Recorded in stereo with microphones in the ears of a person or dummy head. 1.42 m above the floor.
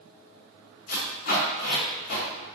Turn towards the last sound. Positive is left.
turn(degrees=45)  # may be behind; listen again after turning